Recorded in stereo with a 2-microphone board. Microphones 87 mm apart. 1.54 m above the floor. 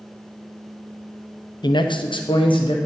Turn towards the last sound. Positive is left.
turn(degrees=80)